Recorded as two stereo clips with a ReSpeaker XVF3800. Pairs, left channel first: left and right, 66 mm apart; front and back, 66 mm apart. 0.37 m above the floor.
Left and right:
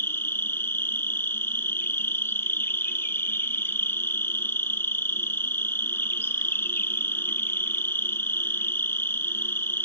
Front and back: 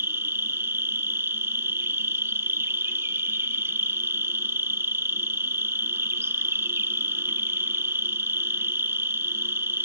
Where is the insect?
135° left, 0.7 m.